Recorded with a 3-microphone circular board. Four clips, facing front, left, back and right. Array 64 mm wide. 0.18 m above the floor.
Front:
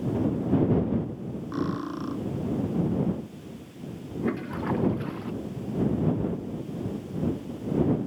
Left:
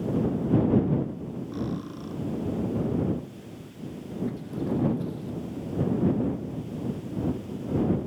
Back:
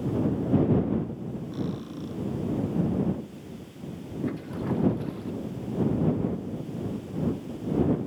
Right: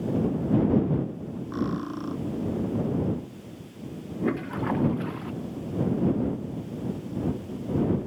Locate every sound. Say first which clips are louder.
1.5 s cutlery clinking: right 5 dB, front 6 dB; 35° right
4.2 s a toilet flushing: right 4 dB, front 2 dB; 60° right